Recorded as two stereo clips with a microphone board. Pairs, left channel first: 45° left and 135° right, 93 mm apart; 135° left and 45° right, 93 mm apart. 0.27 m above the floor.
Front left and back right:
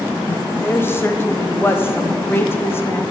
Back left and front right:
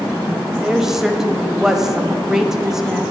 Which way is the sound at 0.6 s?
35° left.